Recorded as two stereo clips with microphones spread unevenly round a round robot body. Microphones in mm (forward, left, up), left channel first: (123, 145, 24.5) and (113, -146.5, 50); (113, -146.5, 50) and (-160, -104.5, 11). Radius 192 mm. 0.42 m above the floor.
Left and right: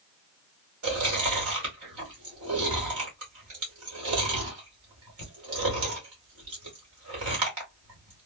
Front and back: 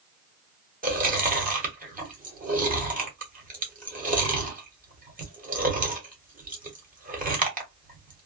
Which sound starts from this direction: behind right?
Chewing, at 0.8 s.